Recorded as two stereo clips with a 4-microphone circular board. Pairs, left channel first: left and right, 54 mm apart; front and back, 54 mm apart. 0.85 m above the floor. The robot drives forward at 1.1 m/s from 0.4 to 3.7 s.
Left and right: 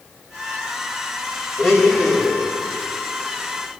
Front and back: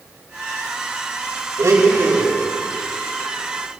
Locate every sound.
1.6 s a blender: 170° right, 2.5 m; by 2.4 s 175° right, 3.5 m